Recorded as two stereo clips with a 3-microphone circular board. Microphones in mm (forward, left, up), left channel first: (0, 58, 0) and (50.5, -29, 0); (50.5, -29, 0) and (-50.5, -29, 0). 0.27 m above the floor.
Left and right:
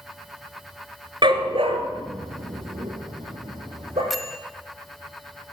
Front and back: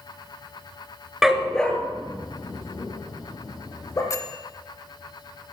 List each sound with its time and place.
1.2 s a dog barking: 95° right, 1.3 m; by 4.0 s 60° right, 4.5 m
4.1 s a bell: 30° left, 1.2 m